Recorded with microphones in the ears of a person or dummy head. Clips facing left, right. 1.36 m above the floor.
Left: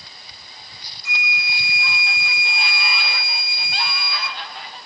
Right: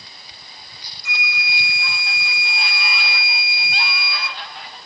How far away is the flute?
About 0.5 m.